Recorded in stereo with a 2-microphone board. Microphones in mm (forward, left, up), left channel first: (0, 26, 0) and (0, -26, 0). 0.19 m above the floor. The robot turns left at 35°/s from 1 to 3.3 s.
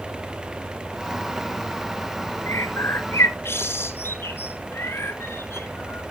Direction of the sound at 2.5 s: 70° left (ahead or behind).